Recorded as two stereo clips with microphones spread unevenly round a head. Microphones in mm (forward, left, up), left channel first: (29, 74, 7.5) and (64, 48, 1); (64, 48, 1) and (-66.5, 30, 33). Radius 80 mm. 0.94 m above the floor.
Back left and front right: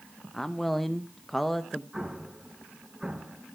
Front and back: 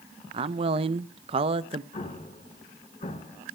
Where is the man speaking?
125° right, 0.5 m.